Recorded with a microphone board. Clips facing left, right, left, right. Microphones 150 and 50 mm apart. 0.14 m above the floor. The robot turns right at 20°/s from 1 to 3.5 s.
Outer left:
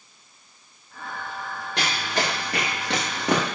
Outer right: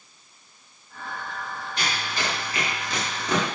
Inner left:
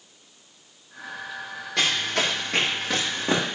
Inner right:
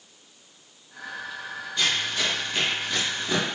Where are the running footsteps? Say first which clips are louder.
Outer left 4 dB, inner left 2 dB; 70° left (ahead or behind), 3.5 m; by 3.5 s 55° left (ahead or behind), 3.5 m.